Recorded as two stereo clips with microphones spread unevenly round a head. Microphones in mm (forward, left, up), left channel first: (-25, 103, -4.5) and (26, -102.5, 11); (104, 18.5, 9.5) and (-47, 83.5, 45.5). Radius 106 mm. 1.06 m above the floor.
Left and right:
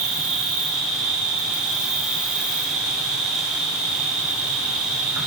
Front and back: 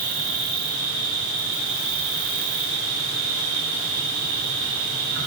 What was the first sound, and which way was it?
An insect, 165° right.